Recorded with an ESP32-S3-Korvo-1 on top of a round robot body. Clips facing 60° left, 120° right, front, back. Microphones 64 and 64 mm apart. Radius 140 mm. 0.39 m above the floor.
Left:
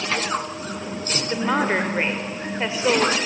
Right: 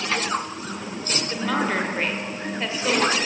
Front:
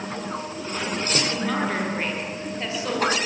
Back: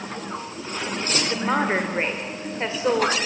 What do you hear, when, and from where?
1.3 s a woman speaking: 125° left, 2 m